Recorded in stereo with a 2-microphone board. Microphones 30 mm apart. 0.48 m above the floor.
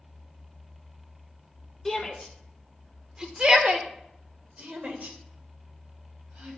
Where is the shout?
10° left (ahead or behind), 1.9 m; by 6.6 s 65° right (ahead or behind), 3.5 m.